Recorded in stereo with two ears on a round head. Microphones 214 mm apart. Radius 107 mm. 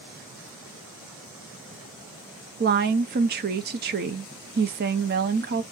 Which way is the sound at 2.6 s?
40° right (ahead or behind).